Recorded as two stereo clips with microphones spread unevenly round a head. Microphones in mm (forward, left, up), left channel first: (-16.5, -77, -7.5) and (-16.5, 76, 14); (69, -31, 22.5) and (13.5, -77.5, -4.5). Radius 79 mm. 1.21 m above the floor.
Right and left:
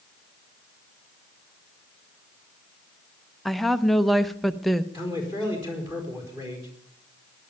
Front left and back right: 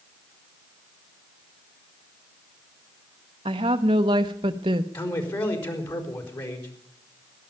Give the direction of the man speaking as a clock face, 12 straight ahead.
11 o'clock.